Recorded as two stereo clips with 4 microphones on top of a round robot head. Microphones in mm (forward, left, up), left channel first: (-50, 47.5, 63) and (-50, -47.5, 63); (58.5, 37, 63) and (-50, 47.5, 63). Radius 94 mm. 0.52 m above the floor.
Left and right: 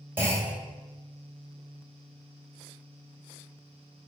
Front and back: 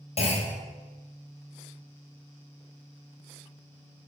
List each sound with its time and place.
0.2 s a clunk: 25° right, 2.5 m